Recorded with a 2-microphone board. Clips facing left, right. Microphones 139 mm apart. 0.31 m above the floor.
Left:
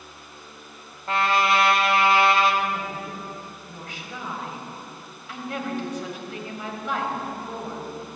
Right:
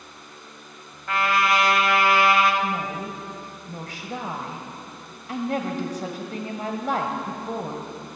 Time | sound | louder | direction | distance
1.1 | a trumpet | left 1 dB | 30° left (ahead or behind) | 1.4 m
2.6 | a woman speaking | right 2 dB | 40° right (ahead or behind) | 1.4 m